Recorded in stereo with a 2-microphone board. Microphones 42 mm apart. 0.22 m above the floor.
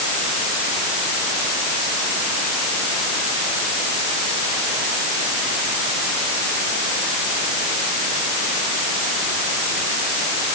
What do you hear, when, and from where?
Only background noise.